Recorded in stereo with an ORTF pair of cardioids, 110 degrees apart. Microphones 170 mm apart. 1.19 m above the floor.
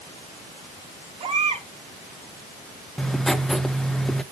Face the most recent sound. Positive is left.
turn(degrees=5)